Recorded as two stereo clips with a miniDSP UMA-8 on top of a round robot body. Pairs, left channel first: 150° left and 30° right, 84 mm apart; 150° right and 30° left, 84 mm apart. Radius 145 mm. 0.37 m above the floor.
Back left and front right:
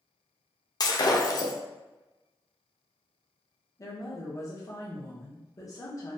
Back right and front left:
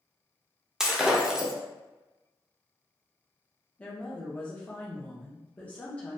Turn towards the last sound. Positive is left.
turn(degrees=150)